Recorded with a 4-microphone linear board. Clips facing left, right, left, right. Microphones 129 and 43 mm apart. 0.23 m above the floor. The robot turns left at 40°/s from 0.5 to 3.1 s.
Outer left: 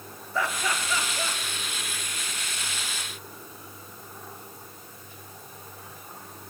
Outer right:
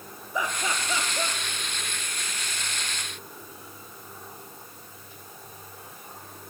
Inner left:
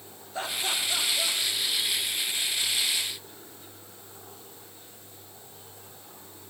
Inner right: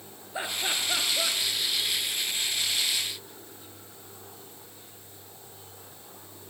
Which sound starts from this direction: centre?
Laughter, at 0.3 s.